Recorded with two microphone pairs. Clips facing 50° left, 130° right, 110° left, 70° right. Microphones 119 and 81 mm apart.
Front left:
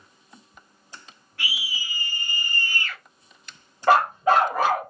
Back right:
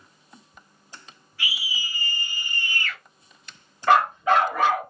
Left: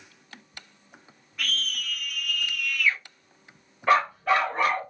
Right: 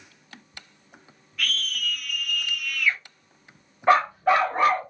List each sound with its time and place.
1.4 s a scream: 45° left, 1.1 m; by 3.0 s 20° right, 1.0 m
3.9 s a dog barking: straight ahead, 1.4 m